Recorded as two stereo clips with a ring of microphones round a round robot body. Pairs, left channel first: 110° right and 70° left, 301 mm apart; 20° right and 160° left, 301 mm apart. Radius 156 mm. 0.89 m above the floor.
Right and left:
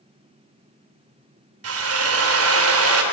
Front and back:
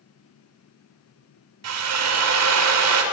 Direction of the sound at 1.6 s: 115° left.